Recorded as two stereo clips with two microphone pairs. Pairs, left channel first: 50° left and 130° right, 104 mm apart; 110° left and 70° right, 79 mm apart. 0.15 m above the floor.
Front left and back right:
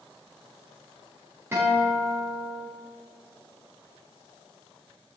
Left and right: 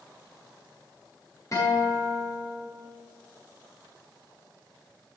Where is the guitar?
160° left, 8 m.